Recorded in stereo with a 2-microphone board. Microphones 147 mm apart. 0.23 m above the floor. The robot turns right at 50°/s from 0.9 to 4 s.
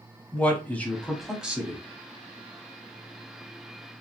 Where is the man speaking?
165° left, 1.2 m; by 1.8 s 150° right, 1.2 m.